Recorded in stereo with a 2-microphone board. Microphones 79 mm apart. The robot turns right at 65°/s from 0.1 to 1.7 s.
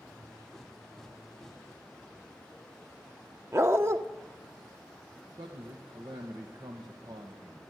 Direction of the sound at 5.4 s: 75° right (ahead or behind).